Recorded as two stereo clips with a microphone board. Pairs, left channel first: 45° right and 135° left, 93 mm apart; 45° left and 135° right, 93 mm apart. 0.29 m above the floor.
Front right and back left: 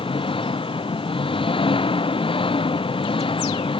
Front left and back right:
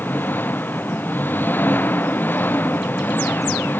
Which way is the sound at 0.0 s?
25° right.